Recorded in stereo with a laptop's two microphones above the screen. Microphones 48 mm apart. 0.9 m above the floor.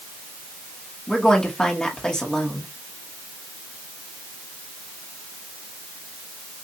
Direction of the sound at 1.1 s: 15° left (ahead or behind).